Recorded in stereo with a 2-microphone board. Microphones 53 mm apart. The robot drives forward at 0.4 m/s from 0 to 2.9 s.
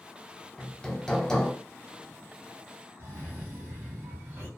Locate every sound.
0.6 s hammering: 20° left (ahead or behind), 0.6 m; by 1.5 s 10° left (ahead or behind), 0.9 m
3.0 s a cough: 30° right (ahead or behind), 1.3 m